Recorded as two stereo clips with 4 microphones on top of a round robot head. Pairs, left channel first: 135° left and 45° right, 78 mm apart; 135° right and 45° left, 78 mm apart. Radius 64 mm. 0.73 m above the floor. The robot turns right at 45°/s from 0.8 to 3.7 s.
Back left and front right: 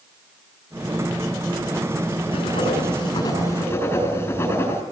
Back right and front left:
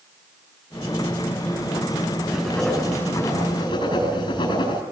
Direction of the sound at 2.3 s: 130° left.